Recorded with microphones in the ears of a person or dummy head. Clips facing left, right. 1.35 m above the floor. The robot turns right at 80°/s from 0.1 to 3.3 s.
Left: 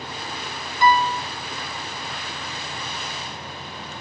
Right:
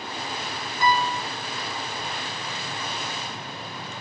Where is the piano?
120° left, 0.7 m; by 1.2 s 155° left, 0.7 m.